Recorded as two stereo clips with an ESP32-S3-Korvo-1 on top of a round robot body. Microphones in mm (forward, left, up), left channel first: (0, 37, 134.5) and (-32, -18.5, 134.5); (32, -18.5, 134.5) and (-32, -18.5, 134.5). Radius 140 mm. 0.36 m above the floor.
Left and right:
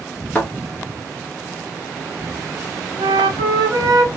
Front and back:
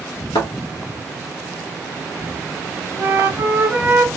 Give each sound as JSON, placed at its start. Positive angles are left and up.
{"t": 0.3, "sound": "a thud", "azimuth_deg": -15, "distance_m": 1.1}
{"t": 3.0, "sound": "a flute", "azimuth_deg": -115, "distance_m": 1.0}